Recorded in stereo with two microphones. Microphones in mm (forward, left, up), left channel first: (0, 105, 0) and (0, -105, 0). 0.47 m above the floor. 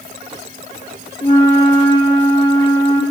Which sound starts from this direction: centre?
A flute, at 1.2 s.